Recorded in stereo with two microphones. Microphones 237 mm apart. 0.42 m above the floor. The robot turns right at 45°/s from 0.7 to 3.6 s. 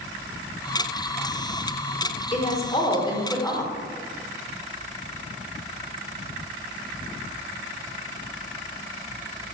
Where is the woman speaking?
25° left (ahead or behind), 0.9 m; by 3.7 s 10° left (ahead or behind), 0.9 m.